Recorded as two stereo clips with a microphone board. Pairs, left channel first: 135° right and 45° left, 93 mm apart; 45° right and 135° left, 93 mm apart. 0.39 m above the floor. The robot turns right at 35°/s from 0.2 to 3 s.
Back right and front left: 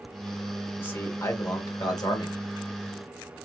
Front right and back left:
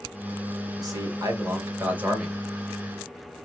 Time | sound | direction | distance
0.8 | a man speaking | 160° left | 1.9 m